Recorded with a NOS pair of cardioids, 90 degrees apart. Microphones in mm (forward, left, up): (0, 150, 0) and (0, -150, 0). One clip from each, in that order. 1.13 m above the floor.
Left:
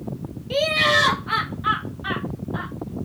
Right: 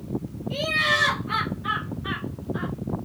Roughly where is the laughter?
Ahead left.